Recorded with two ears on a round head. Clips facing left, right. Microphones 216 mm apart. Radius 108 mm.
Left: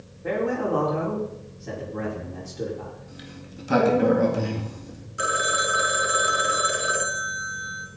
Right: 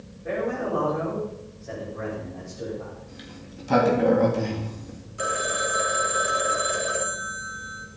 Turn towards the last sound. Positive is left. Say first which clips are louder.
# even
turn(degrees=20)  # may be behind; listen again after turning